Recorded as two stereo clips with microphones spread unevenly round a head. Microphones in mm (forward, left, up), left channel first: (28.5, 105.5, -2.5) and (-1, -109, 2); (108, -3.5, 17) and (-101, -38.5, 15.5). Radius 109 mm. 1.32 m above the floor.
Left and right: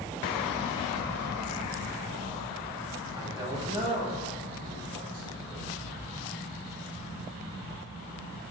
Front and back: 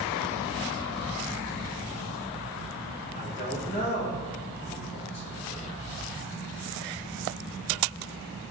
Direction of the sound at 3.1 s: 25° right.